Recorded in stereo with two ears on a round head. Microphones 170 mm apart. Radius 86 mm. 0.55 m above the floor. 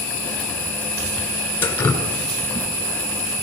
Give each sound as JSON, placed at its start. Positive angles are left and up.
{"t": 1.6, "sound": "dripping", "side_deg": 10, "distance_m": 2.0}